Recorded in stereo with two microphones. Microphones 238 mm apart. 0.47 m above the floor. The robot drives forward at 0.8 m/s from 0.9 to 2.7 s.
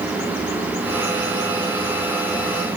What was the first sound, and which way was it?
Only background noise.